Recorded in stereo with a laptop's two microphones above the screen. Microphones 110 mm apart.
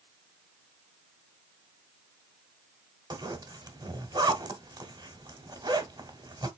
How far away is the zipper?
About 1.0 m.